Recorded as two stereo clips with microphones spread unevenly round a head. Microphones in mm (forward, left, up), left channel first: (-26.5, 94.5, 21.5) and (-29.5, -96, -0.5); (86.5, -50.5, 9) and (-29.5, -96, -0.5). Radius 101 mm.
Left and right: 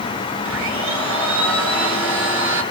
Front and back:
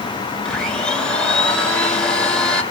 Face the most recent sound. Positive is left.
turn(degrees=-60)